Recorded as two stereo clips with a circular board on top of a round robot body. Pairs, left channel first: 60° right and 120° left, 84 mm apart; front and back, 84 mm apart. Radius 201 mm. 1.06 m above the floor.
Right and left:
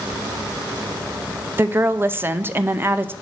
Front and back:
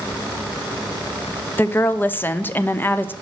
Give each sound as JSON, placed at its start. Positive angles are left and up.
{"t": 1.6, "sound": "a woman speaking", "azimuth_deg": 60, "distance_m": 0.9}